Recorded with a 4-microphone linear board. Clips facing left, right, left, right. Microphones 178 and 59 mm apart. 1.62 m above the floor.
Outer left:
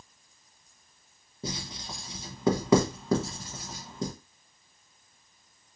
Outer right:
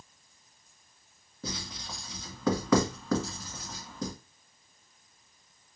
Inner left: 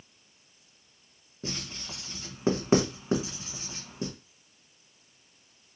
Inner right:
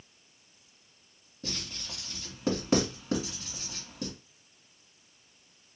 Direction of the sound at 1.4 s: 25° left (ahead or behind).